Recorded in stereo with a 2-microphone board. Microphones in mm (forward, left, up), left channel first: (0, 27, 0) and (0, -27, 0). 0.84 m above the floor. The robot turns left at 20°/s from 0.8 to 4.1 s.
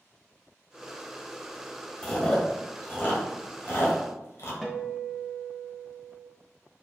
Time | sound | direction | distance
2.0 | chewing | 20° left (ahead or behind) | 1.5 m
4.6 | a guitar | 5° left (ahead or behind) | 1.0 m